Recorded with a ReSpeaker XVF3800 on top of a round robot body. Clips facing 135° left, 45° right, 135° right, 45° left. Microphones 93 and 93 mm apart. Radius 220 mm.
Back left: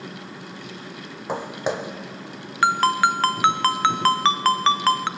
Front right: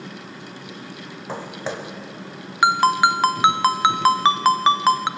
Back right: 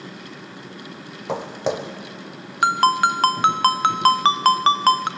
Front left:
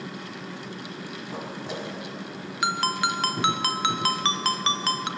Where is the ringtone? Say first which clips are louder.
Front right 2 dB, back right 9 dB; 115° right, 0.7 m.